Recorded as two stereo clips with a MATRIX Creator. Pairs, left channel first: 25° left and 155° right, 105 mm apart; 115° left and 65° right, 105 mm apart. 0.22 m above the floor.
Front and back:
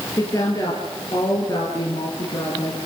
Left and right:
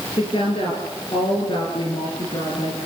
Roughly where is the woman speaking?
Left.